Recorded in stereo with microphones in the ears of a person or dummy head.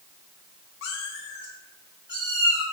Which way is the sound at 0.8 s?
60° left (ahead or behind).